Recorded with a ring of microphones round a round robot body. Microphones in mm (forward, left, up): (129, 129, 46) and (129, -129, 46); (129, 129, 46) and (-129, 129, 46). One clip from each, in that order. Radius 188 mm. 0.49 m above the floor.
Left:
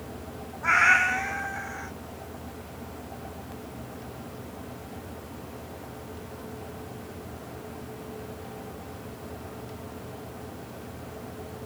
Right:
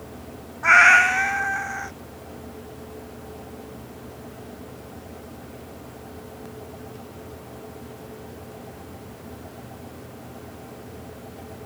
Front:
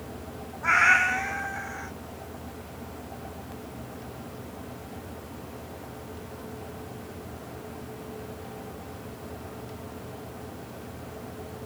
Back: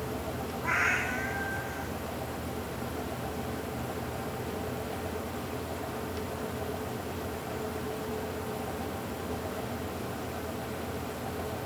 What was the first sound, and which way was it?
A cat meowing, 40° right.